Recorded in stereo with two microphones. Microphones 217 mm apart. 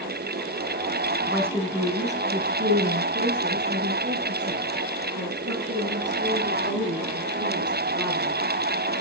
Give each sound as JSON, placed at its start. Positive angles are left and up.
{"t": 1.3, "sound": "a woman speaking", "side_deg": -5, "distance_m": 1.0}